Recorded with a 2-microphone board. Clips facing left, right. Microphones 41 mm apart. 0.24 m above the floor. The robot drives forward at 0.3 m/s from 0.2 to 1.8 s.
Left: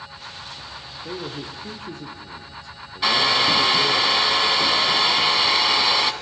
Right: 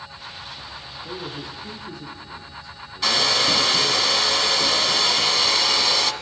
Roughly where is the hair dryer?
Centre.